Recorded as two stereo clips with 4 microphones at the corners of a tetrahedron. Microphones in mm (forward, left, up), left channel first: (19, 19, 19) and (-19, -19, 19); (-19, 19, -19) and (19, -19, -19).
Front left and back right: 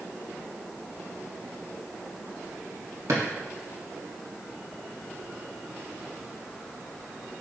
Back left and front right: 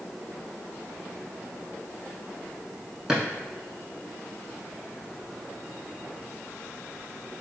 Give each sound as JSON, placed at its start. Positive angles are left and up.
{"t": 3.1, "sound": "a drawer", "azimuth_deg": -125, "distance_m": 0.8}